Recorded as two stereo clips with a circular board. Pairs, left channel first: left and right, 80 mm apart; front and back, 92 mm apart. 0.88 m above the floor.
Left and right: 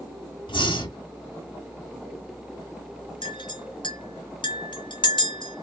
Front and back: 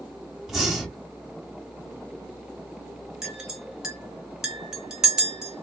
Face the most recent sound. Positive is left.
turn(degrees=100)